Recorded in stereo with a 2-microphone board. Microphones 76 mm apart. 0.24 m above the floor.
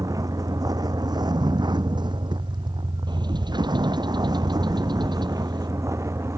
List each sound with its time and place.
0.0 s a vehicle: 50° right (ahead or behind); by 6.4 s 35° right (ahead or behind)
3.1 s a bird: 80° right